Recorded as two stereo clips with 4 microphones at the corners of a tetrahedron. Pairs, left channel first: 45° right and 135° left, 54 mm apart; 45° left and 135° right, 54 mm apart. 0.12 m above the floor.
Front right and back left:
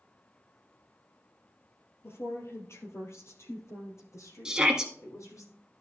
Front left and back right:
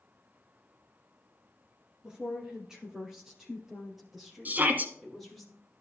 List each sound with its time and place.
2.0 s a woman speaking: 65° right, 2.5 m; by 5.5 s 50° right, 3.5 m
4.5 s a shout: 155° right, 1.5 m